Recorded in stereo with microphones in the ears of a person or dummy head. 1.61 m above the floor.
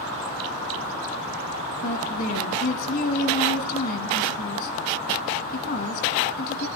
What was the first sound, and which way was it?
A woman speaking, 60° left (ahead or behind).